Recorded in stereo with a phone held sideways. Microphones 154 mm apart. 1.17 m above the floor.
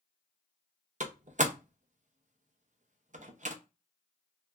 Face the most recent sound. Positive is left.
turn(degrees=-55)  # may be behind; listen again after turning